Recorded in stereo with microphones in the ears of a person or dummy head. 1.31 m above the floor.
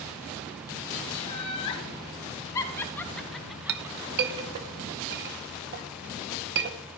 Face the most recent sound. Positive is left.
turn(degrees=-55)  # may be behind; listen again after turning